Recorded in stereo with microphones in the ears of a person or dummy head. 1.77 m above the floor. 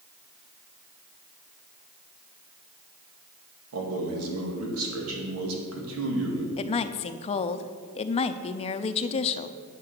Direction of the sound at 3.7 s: 80° right.